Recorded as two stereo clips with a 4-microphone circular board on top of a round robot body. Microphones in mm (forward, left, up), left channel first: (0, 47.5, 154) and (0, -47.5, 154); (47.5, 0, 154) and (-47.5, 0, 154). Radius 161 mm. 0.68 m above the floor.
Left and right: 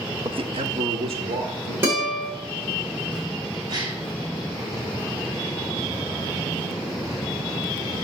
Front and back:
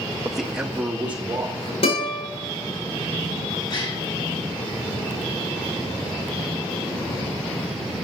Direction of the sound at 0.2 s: 90° right.